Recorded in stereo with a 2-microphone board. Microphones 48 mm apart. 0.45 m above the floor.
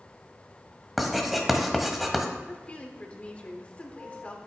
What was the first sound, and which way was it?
Writing, centre (ahead or behind).